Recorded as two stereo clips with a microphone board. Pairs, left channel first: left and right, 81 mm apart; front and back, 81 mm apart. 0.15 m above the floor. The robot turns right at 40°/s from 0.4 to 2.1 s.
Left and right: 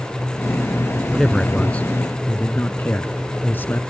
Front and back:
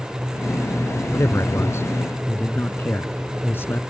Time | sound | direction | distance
1.1 | a man speaking | straight ahead | ?